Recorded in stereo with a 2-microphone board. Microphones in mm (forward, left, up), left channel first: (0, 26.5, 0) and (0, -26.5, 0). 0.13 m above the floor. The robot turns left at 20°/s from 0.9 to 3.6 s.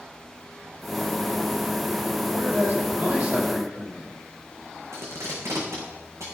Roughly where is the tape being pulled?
Right.